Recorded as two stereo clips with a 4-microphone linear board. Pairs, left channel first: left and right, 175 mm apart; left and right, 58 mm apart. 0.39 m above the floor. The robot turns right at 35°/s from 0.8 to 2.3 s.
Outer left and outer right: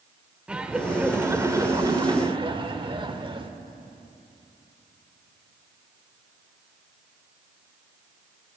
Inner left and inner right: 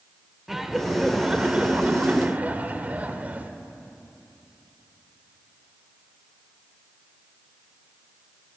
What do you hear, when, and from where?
0.5 s laughter: 170° right, 0.9 m; by 3.5 s 115° right, 0.9 m